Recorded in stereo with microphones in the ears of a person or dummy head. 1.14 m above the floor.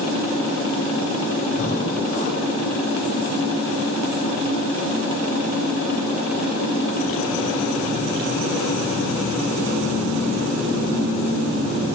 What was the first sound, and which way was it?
Breathing, 40° left (ahead or behind).